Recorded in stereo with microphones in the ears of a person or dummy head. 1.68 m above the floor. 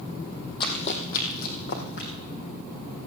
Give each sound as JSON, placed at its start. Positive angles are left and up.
{"t": 0.6, "sound": "running footsteps", "side_deg": 25, "distance_m": 2.5}